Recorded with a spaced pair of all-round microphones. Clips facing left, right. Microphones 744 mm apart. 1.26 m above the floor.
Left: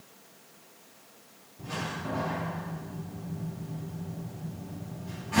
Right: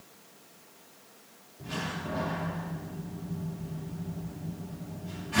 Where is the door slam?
70° left (ahead or behind), 1.8 m.